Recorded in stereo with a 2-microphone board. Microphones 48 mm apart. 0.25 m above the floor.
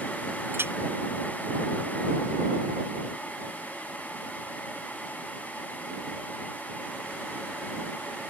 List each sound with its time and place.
0.5 s a clink: 50° right (ahead or behind)